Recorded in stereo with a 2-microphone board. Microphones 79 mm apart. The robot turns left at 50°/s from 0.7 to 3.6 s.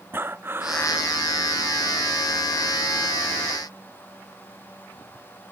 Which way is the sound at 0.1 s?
25° right (ahead or behind).